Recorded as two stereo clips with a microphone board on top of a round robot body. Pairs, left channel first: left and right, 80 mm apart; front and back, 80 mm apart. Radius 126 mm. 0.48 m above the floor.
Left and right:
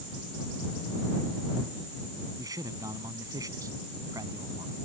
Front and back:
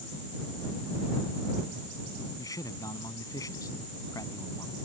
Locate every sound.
2.4 s a man speaking: 45° right